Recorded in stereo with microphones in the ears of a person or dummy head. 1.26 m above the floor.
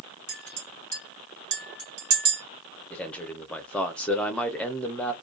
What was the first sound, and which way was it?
A clink, 35° right (ahead or behind).